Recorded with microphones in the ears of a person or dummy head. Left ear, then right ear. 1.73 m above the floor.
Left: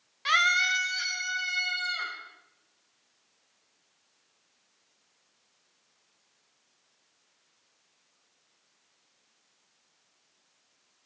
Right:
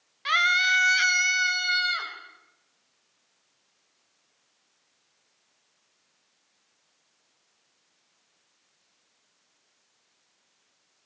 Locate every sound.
0.2 s a scream: 5° left (ahead or behind), 1.3 m; by 2.1 s 65° right (ahead or behind), 2 m